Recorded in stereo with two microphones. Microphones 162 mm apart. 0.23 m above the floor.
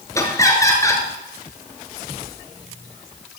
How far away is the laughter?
About 3 m.